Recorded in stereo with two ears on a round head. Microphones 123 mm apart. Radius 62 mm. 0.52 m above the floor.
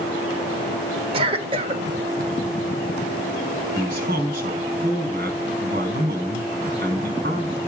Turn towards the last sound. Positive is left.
turn(degrees=-65)  # may be behind; listen again after turning